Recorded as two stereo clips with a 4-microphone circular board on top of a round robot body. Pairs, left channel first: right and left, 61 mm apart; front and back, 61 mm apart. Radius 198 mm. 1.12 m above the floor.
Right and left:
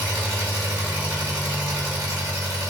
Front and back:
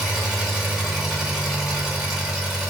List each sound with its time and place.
0.0 s an engine running: 105° left, 1.3 m